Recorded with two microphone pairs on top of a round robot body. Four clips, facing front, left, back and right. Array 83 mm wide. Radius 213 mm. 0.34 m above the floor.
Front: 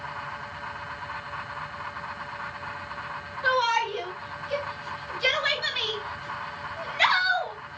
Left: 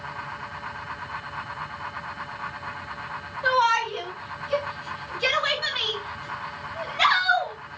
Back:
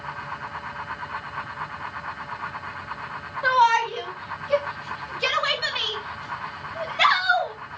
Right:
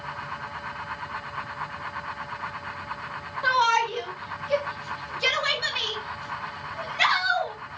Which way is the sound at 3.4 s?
170° right.